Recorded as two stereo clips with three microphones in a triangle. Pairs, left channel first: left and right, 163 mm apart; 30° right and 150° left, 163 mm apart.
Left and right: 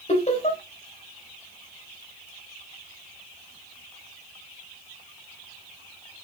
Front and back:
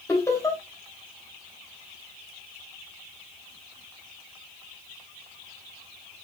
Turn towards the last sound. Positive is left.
turn(degrees=40)